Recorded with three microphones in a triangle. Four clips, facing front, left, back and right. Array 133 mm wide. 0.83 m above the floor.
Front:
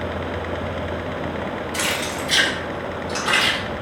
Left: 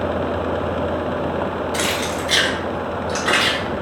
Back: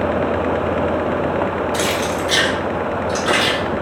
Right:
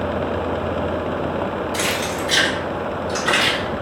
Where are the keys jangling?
75° left, 2.5 m; by 3.6 s 65° left, 3.5 m.